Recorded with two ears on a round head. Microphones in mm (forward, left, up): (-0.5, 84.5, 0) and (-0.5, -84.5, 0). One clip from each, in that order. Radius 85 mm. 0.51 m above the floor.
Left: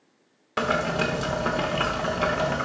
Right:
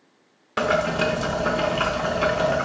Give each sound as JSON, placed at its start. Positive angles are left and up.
{"t": 0.6, "sound": "boiling", "side_deg": 5, "distance_m": 0.9}